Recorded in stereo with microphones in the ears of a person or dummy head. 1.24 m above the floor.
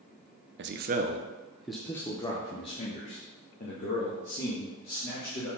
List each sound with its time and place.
0.6 s a man speaking: 55° right (ahead or behind), 0.7 m; by 5.5 s 50° left (ahead or behind), 3 m